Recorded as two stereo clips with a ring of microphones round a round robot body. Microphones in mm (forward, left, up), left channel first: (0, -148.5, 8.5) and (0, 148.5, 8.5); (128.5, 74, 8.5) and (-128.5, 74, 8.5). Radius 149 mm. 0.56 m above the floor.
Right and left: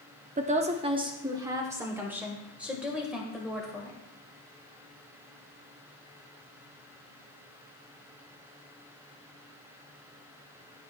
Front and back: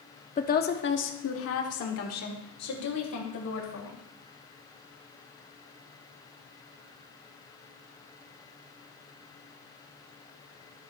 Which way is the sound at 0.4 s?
40° left.